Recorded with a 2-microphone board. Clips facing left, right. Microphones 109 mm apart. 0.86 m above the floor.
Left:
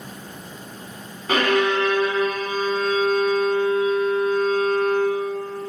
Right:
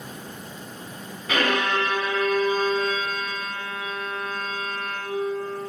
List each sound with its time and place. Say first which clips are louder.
1.3 s a violin: left 4 dB; 40° left (ahead or behind), 3 m